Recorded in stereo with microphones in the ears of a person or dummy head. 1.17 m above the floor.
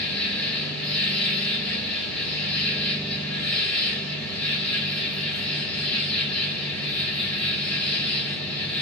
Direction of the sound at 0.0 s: 5° left (ahead or behind).